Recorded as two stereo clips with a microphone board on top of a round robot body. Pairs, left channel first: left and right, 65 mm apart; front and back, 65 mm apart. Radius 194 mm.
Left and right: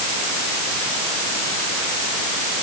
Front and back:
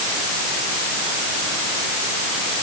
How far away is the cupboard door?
I don't hear a cupboard door.